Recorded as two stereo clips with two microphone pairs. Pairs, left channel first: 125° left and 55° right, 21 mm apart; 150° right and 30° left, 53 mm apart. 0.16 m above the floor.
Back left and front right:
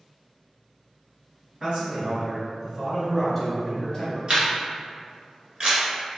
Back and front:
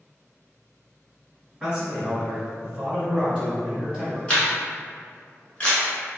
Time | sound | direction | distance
1.6 | a man speaking | 40° right | 1.9 m
4.3 | a camera shutter | 85° right | 1.1 m